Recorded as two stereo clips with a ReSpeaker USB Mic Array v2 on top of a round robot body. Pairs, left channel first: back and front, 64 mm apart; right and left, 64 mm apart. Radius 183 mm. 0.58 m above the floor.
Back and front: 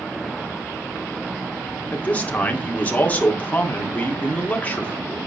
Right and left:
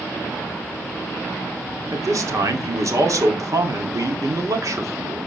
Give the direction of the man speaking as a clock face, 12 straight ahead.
8 o'clock.